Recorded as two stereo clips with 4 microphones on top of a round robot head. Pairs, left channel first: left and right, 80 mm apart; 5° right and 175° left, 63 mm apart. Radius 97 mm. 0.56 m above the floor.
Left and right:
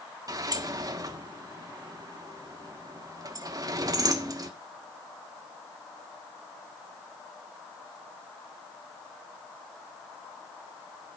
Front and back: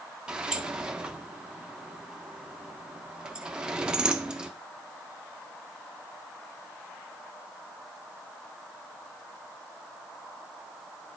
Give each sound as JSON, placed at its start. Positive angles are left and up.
{"t": 0.3, "sound": "a sliding door", "azimuth_deg": -110, "distance_m": 1.5}